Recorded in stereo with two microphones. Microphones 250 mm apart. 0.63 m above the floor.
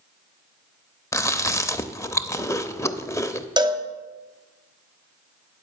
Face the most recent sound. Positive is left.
turn(degrees=-20)  # may be behind; listen again after turning